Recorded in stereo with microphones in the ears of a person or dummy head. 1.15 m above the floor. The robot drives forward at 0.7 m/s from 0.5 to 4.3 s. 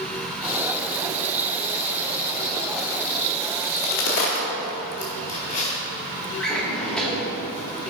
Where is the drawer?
5° left (ahead or behind), 1.3 m.